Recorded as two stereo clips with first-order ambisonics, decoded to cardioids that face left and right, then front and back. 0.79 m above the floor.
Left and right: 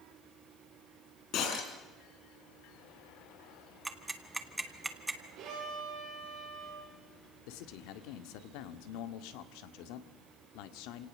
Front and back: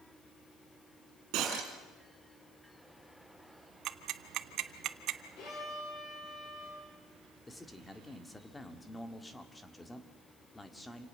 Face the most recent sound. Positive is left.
turn(degrees=85)